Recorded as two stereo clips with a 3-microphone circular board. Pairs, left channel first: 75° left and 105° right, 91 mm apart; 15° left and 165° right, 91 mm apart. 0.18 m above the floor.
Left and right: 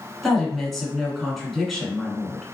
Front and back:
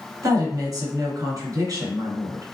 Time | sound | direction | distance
0.2 | a woman speaking | 165° left | 1.6 m